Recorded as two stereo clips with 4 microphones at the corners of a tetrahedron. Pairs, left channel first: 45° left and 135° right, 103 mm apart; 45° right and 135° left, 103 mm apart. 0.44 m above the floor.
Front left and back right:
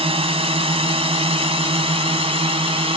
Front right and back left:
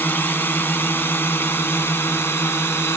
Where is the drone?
115° right; by 3.0 s 110° right.